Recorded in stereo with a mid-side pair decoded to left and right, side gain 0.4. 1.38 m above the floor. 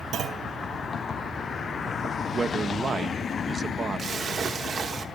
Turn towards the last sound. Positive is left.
turn(degrees=-45)